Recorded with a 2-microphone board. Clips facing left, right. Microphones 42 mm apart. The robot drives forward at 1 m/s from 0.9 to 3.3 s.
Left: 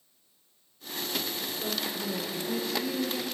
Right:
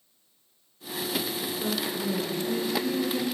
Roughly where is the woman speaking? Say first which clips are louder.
Right 4 dB; right.